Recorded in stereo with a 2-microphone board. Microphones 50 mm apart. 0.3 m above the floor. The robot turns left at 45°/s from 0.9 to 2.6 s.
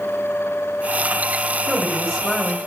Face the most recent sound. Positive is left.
turn(degrees=160)